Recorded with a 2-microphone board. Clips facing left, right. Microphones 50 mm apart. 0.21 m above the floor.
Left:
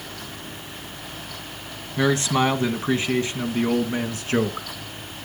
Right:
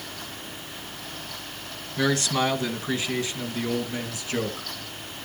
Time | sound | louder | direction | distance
2.0 | a man speaking | left 3 dB | 20° left (ahead or behind) | 1.8 m